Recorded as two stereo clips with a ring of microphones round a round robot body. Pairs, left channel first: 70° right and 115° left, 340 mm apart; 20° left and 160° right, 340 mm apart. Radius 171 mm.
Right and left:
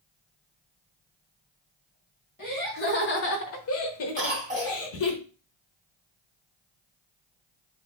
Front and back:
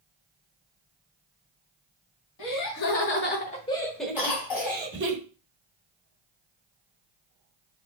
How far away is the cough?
About 2.5 m.